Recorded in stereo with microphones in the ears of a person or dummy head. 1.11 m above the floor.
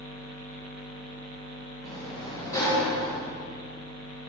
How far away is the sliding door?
About 1.7 m.